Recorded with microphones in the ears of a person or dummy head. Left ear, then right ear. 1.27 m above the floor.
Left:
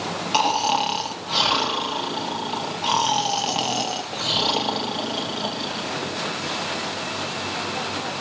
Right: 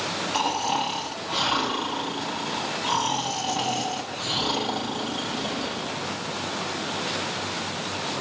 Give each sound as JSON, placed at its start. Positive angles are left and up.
{"t": 0.3, "sound": "snoring", "side_deg": 50, "distance_m": 1.0}